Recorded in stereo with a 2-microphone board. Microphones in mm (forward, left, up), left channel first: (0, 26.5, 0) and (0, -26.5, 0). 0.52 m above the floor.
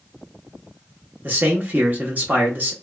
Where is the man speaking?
35° right (ahead or behind), 0.8 m.